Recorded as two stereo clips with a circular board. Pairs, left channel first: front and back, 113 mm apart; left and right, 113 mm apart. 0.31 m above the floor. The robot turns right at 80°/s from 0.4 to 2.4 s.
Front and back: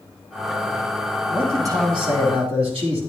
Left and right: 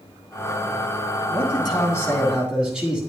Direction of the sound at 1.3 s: 100° left.